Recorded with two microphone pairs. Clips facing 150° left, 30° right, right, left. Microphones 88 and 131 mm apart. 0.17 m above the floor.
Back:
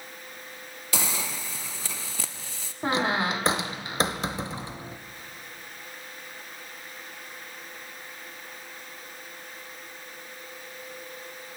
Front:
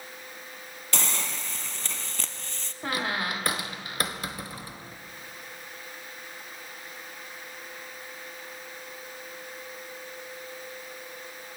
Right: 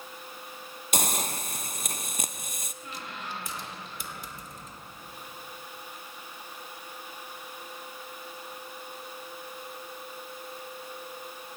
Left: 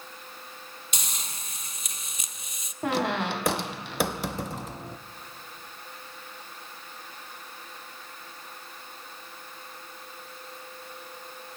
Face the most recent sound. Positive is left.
turn(degrees=80)